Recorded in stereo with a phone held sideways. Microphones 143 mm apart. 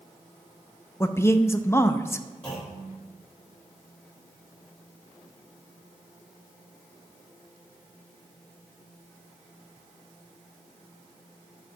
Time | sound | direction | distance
1.0 | a man speaking | 20° left (ahead or behind) | 0.6 m
2.4 | a clunk | 5° left (ahead or behind) | 3.5 m